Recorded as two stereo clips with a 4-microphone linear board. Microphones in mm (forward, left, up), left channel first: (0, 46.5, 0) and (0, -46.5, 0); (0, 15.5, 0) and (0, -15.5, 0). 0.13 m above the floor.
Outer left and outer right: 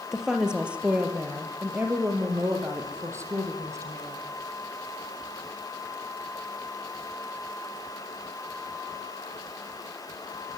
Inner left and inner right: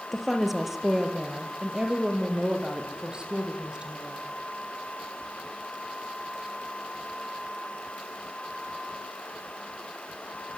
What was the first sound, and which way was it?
A woman speaking, 5° right (ahead or behind).